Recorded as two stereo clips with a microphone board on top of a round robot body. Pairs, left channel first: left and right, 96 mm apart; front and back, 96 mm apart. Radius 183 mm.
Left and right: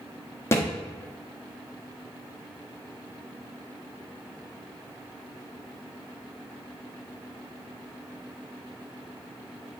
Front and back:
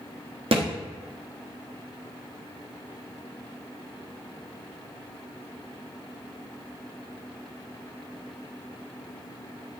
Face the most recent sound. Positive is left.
turn(degrees=155)